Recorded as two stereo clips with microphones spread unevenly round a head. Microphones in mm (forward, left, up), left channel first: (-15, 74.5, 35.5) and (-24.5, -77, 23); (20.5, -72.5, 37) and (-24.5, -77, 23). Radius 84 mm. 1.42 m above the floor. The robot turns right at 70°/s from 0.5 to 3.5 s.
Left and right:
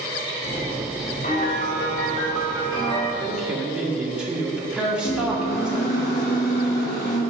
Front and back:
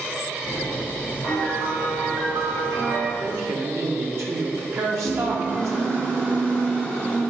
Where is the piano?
45° left, 1.7 m; by 3.1 s 175° left, 1.7 m.